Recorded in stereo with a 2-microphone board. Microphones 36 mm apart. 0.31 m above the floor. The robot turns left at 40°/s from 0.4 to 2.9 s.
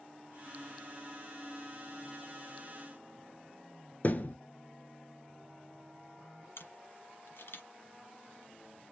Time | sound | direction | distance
4.0 | a thud | 45° left (ahead or behind) | 0.7 m
6.6 | a camera shutter | 75° left (ahead or behind) | 0.9 m